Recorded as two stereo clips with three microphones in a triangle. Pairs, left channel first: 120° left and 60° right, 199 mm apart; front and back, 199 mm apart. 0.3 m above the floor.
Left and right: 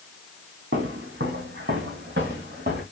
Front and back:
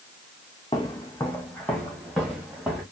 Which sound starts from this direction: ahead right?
Footsteps, at 0.7 s.